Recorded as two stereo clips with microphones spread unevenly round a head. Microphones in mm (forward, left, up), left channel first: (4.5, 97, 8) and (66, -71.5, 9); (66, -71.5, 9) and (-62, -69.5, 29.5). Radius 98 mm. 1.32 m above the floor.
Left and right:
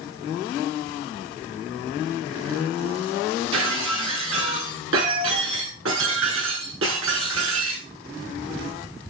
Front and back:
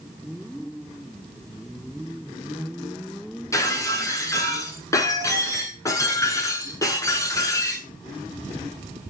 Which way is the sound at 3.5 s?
70° right.